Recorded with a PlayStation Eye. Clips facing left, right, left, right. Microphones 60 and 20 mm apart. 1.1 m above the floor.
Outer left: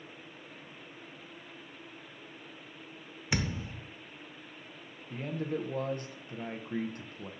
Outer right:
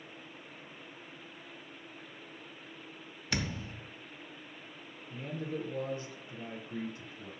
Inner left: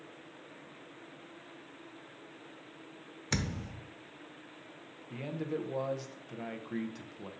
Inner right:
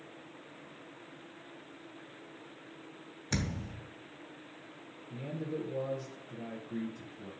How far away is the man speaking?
About 0.8 m.